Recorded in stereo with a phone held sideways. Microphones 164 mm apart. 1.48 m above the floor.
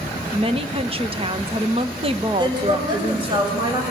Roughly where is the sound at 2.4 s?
Right.